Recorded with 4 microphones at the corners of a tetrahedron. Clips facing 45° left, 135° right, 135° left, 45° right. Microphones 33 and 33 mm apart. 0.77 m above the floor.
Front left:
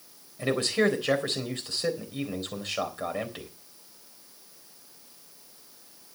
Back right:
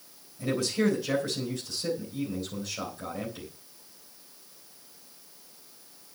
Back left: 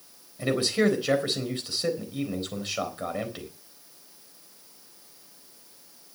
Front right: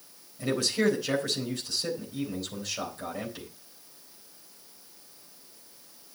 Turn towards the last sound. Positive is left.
turn(degrees=80)